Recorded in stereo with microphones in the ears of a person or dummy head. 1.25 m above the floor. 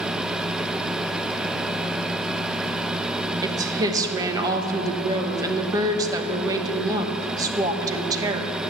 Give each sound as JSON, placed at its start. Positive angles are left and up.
{"t": 3.4, "sound": "a woman speaking", "side_deg": -20, "distance_m": 1.1}